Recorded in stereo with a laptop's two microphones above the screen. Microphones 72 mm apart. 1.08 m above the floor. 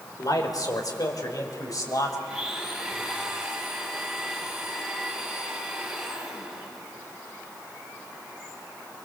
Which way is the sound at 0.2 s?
60° left (ahead or behind).